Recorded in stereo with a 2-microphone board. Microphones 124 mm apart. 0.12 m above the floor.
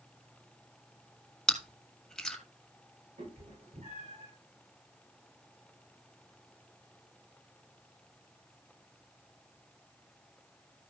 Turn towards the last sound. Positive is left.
turn(degrees=-80)